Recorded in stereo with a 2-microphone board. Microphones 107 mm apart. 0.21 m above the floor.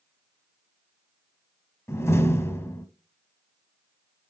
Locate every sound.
1.9 s a door slam: 25° left (ahead or behind), 0.9 m